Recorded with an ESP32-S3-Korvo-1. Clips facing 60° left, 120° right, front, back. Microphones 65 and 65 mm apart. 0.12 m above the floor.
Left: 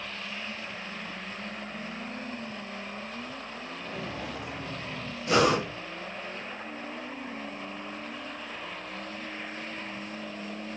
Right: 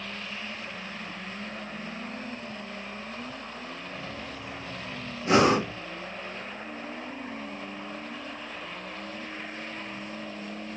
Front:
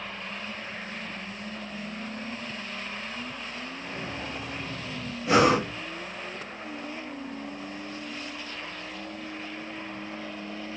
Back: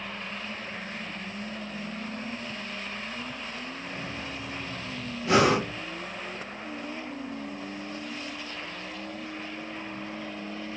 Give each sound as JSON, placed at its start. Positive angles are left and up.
{"t": 3.8, "sound": "footsteps", "azimuth_deg": 65, "distance_m": 1.3}
{"t": 5.2, "sound": "breathing", "azimuth_deg": -80, "distance_m": 2.5}